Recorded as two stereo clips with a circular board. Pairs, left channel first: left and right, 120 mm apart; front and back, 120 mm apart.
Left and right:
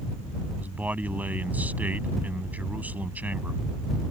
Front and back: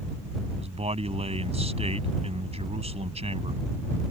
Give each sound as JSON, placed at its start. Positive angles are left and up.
{"t": 0.6, "sound": "a man speaking", "azimuth_deg": -165}